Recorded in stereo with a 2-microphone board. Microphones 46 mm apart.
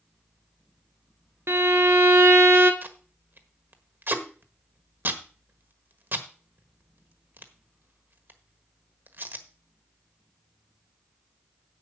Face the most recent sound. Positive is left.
turn(degrees=-55)  # may be behind; listen again after turning